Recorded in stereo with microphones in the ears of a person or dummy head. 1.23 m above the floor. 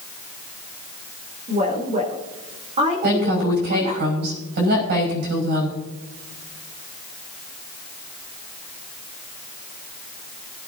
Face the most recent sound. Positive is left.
turn(degrees=-55)  # may be behind; listen again after turning